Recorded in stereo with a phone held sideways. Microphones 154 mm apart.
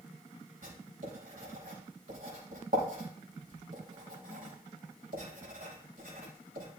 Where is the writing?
70° right (ahead or behind), 4.5 m.